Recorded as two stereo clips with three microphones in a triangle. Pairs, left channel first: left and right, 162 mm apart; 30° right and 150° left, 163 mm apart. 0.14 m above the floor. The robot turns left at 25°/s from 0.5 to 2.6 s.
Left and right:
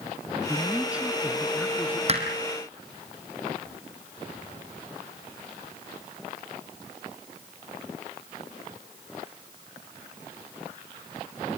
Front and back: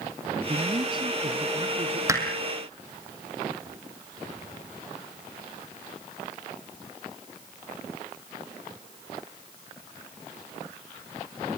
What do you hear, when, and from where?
0.5 s a man speaking: 160° right, 2.0 m; by 2.0 s 165° left, 2.0 m
2.1 s hammering: 140° right, 3.5 m